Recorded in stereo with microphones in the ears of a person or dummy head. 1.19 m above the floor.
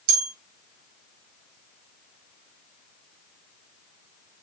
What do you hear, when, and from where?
0.1 s a bell: 75° right (ahead or behind), 1.4 m